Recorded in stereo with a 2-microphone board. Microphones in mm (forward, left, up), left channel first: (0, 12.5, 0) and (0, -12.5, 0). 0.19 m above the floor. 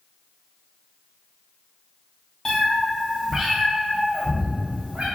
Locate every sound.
2.5 s a cat meowing: 20° left (ahead or behind), 0.9 m; by 5.1 s 75° right (ahead or behind), 1.1 m